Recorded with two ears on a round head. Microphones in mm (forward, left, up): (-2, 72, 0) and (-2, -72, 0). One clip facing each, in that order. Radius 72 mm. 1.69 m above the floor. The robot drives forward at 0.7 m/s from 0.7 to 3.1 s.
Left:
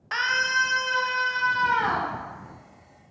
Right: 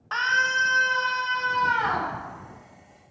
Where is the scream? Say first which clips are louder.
Right 1 dB; 15° left (ahead or behind), 0.5 m; by 2.1 s 5° left (ahead or behind), 1.4 m.